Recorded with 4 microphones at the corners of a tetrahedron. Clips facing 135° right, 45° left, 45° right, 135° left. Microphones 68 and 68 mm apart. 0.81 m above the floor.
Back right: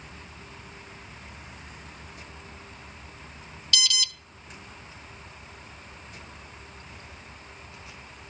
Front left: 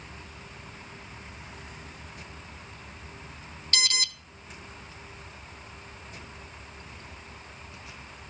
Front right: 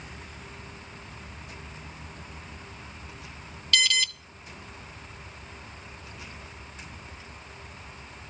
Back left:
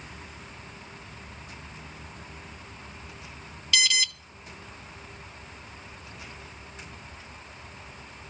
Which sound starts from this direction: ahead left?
An alarm, at 3.7 s.